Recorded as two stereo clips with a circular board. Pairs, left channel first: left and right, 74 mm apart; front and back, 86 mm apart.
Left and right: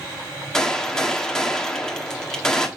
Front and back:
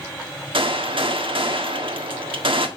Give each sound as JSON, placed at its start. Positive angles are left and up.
{"t": 0.5, "sound": "a gunshot", "azimuth_deg": 170, "distance_m": 1.5}